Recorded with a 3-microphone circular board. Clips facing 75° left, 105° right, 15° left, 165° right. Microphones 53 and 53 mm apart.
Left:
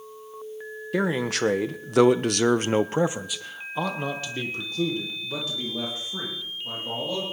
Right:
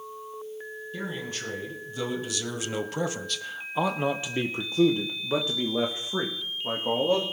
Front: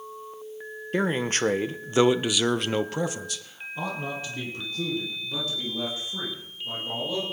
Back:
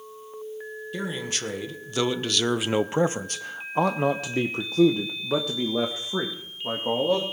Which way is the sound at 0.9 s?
60° left.